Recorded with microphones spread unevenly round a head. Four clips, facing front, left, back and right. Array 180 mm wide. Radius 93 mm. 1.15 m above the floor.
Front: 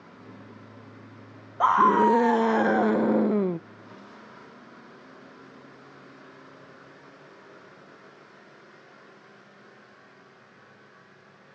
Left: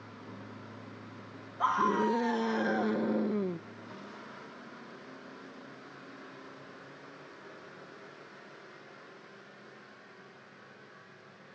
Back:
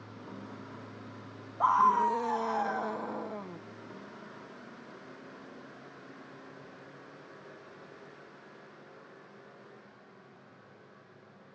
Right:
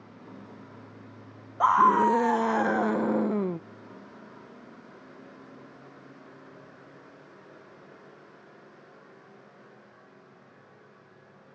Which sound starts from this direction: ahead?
A scream, at 1.6 s.